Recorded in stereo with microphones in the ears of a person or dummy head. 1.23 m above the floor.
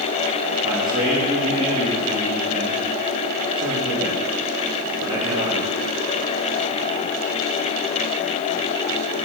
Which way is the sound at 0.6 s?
30° right (ahead or behind).